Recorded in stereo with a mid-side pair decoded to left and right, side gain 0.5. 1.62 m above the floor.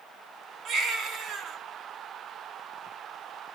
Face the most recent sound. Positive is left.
turn(degrees=-60)